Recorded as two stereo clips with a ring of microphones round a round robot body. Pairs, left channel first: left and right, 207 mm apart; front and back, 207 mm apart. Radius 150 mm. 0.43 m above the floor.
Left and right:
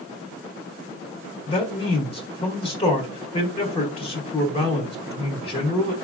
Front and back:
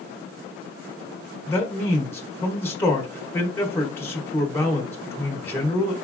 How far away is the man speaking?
About 0.8 m.